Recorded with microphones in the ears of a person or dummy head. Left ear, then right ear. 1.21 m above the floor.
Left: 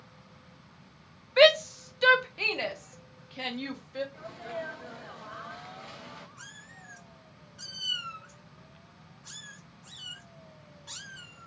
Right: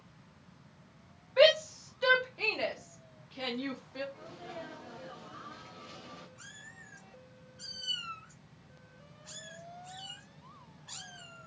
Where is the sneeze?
50° left (ahead or behind), 0.9 m.